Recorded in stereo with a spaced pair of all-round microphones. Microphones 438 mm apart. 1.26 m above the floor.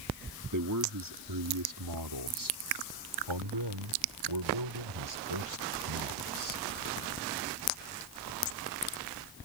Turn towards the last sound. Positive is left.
turn(degrees=-85)